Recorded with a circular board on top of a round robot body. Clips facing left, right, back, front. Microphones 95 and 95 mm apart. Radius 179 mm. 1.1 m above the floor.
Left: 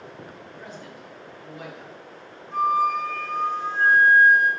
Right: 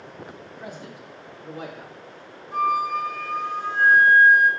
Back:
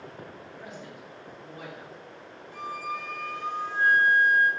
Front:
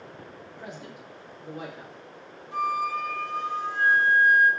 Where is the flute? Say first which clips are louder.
Left 1 dB, front 8 dB; 5° right, 5 m.